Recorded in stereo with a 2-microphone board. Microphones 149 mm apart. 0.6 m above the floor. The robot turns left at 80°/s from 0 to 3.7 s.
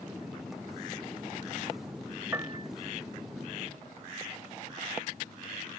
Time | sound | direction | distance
2.3 | a piano | 15° right (ahead or behind) | ?